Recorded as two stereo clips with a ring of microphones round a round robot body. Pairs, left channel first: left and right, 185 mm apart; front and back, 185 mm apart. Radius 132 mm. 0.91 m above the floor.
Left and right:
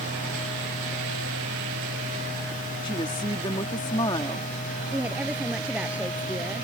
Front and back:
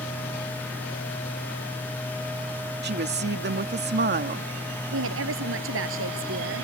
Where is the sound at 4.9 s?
175° right.